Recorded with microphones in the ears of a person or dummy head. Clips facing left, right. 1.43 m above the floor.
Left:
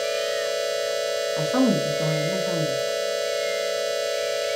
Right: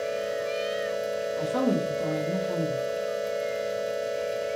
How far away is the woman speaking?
About 1.7 m.